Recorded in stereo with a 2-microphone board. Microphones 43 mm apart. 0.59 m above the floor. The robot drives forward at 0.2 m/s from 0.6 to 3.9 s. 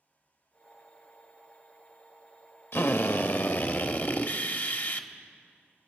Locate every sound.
2.7 s a drill: 65° left (ahead or behind), 0.7 m; by 5.1 s 50° left (ahead or behind), 0.9 m